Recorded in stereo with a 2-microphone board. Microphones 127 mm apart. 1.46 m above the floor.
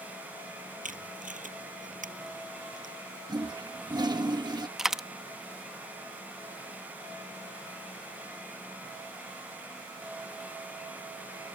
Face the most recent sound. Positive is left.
turn(degrees=-5)  # may be behind; listen again after turning